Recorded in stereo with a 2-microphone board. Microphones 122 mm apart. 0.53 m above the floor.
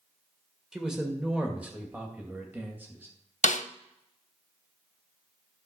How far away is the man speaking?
About 1.5 m.